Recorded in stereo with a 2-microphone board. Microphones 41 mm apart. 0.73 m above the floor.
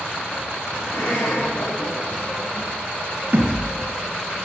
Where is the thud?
45° right (ahead or behind), 4 m.